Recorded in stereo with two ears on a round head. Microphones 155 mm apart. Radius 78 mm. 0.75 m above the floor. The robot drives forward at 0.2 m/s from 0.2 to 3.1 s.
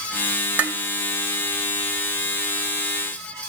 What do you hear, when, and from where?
0.6 s dishes clattering: 10° right (ahead or behind), 0.7 m